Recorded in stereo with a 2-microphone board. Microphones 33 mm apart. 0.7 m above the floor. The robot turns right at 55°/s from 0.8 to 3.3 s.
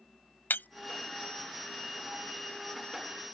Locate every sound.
0.5 s breaking glass: 85° left